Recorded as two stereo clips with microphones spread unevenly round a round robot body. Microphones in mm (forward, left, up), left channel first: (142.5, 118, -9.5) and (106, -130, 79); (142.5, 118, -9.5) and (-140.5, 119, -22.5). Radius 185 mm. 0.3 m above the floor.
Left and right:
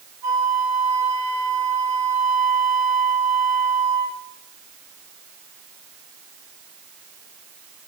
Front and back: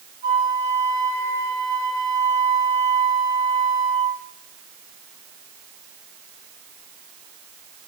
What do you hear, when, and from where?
0.2 s a flute: 100° right, 5.5 m